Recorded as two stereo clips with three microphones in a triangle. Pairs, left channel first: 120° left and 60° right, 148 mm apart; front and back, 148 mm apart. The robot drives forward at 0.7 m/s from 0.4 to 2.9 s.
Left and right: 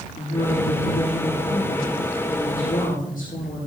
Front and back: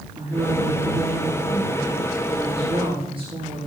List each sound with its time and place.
0.2 s a woman speaking: 120° left, 7.5 m; by 3.7 s 130° left, 8.5 m